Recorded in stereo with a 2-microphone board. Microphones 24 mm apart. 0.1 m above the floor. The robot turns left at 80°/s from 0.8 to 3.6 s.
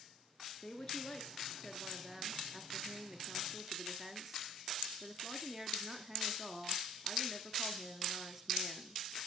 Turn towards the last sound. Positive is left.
turn(degrees=-145)